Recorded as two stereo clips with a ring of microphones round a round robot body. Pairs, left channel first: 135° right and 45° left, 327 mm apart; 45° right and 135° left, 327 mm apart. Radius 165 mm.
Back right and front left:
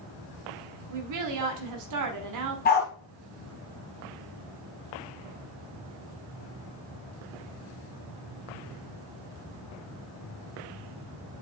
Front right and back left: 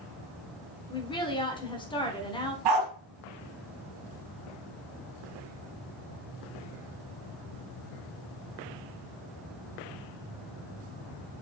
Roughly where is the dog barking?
Behind.